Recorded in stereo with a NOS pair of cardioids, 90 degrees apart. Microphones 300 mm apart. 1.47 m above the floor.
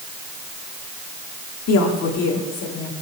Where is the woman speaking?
60° left, 3 m; by 2.9 s 65° left, 5 m.